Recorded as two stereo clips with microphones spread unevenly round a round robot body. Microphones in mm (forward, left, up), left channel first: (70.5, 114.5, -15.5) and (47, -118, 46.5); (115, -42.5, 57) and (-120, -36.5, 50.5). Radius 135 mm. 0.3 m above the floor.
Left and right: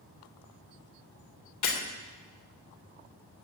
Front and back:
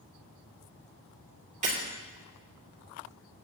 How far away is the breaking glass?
About 3.5 m.